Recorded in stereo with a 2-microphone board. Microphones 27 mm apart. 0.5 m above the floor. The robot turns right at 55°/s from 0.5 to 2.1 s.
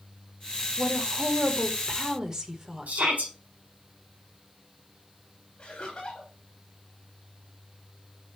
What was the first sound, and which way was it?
A woman speaking, 105° right.